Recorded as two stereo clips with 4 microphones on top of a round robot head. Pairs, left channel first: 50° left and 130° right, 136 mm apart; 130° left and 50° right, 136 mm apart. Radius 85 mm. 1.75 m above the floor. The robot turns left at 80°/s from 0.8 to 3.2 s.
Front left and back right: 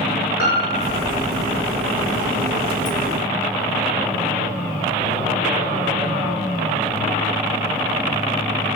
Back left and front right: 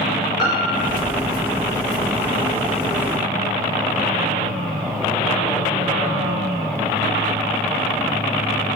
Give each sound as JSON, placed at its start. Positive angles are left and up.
{"t": 0.4, "sound": "a piano", "azimuth_deg": 65, "distance_m": 6.5}